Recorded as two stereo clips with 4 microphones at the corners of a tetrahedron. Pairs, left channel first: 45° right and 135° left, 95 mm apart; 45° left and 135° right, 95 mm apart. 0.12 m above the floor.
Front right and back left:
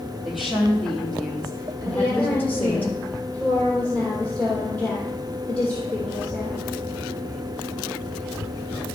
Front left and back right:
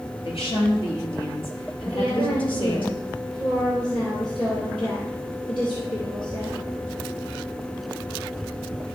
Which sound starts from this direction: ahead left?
A woman speaking, at 0.2 s.